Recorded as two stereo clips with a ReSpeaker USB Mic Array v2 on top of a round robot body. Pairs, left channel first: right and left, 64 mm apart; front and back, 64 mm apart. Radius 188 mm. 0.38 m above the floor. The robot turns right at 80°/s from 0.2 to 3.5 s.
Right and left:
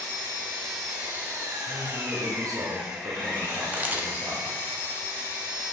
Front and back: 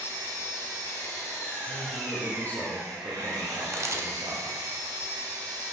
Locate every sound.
0.0 s an engine running: 50° right, 4 m; by 5.7 s 145° right, 4 m
1.6 s a man speaking: straight ahead, 2.0 m; by 4.6 s 145° left, 2.0 m
3.7 s a camera shutter: 150° left, 1.2 m